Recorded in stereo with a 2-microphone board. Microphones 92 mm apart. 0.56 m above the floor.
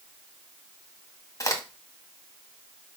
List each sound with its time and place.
1.4 s a crack: 35° left (ahead or behind), 1.7 m